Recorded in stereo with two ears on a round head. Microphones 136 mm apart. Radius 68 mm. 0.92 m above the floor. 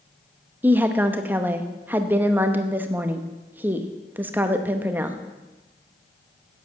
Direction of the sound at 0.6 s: 15° right (ahead or behind).